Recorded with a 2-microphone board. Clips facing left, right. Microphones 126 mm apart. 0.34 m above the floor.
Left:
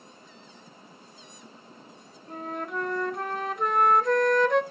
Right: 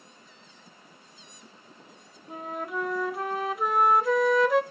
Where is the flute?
5° right (ahead or behind), 0.7 m.